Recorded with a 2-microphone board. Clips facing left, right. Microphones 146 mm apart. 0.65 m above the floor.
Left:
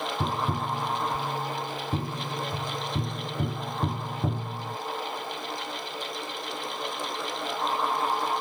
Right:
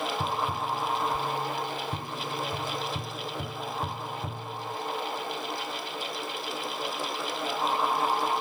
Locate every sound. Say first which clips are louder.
0.2 s tapping: left 1 dB; 55° left (ahead or behind)